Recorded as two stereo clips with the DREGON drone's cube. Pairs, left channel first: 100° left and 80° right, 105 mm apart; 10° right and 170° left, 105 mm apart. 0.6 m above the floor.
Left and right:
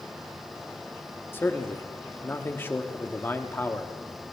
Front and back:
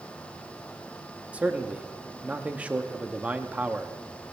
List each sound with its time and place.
1.3 s a man speaking: 115° left, 0.9 m